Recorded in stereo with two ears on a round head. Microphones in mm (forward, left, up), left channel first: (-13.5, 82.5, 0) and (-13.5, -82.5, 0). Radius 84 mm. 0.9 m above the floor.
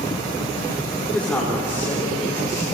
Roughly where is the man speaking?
Centre.